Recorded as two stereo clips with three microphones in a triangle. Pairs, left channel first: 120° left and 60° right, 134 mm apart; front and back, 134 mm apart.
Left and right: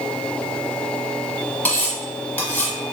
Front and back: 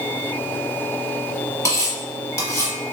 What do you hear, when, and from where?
1.6 s cutlery clinking: 55° left, 0.8 m